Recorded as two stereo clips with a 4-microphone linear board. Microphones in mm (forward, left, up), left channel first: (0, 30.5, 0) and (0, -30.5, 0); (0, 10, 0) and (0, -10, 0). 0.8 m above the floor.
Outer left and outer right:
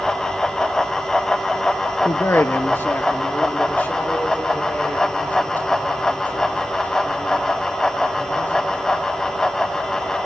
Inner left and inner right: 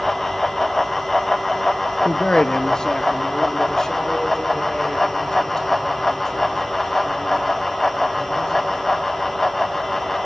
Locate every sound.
2.0 s a man speaking: 40° left (ahead or behind), 0.5 m; by 8.8 s 30° left (ahead or behind), 6 m